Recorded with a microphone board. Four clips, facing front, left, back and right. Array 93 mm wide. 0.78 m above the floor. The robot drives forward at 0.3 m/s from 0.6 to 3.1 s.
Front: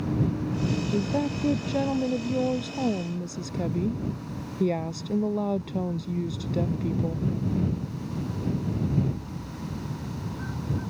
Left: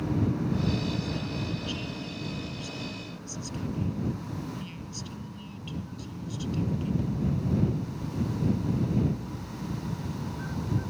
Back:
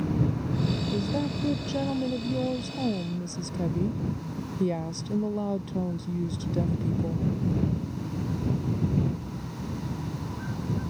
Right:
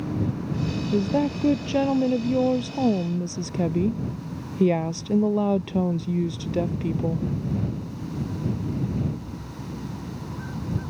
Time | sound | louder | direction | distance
0.9 | a woman speaking | right 10 dB, front 2 dB | 75° right | ?